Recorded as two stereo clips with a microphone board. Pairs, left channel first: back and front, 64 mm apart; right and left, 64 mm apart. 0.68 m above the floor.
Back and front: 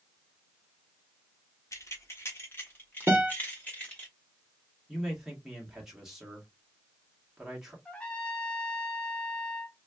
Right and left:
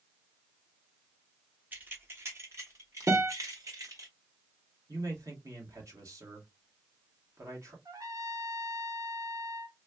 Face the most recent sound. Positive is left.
turn(degrees=110)